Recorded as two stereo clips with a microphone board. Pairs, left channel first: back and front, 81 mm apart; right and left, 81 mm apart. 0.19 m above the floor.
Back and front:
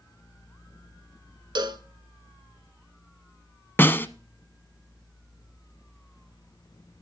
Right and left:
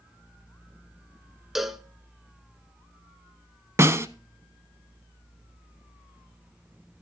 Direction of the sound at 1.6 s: 5° left.